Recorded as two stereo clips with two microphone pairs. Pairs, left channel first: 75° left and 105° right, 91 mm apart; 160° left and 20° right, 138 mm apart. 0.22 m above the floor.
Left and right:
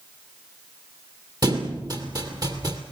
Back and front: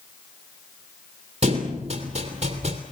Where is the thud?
60° right, 3 m.